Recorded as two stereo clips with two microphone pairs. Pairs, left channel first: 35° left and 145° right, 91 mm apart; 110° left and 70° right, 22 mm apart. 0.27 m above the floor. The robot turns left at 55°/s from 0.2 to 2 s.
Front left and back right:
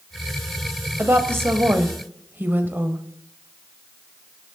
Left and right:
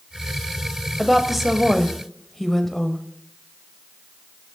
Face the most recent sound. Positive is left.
turn(degrees=180)